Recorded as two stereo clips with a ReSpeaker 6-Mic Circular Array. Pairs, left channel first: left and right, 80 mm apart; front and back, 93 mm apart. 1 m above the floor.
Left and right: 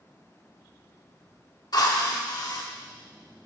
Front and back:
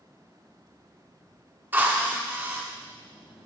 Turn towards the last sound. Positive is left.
turn(degrees=115)